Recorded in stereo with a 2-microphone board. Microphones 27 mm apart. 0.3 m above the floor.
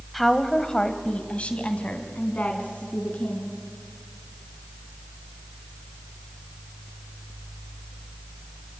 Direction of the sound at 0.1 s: 5° left (ahead or behind).